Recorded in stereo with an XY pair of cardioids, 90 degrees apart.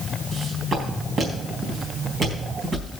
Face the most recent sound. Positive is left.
turn(degrees=-60)